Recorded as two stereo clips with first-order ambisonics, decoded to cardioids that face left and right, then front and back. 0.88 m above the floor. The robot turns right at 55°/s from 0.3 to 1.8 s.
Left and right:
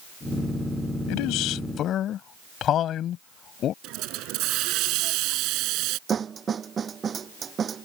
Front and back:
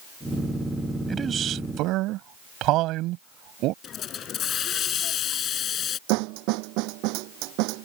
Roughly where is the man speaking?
Left.